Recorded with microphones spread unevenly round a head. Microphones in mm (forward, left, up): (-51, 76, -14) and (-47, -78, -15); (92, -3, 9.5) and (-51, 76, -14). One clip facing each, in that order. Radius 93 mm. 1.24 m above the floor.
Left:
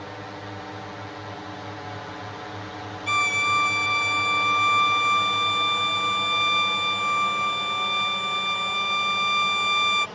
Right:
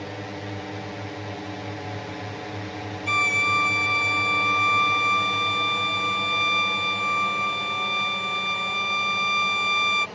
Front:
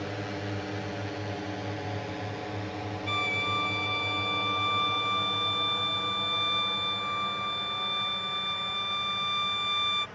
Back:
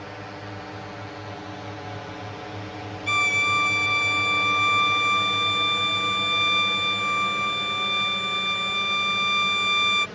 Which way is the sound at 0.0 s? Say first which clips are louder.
Right 3 dB, front 3 dB; 50° right.